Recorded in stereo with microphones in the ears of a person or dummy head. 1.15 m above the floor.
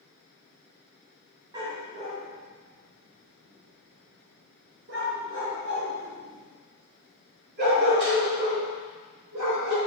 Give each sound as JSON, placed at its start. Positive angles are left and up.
{"t": 1.5, "sound": "a dog barking", "side_deg": -30, "distance_m": 1.8}